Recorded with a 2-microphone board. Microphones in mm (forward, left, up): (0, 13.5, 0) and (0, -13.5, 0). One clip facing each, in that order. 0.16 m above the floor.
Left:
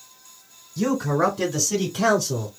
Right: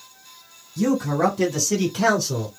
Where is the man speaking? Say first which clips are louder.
Right 1 dB; 15° left (ahead or behind), 1.2 m; by 2.5 s 30° right (ahead or behind), 1.5 m.